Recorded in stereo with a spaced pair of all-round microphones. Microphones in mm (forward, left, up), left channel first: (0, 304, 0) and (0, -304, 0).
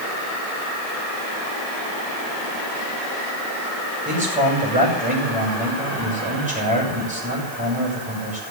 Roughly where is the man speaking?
Centre.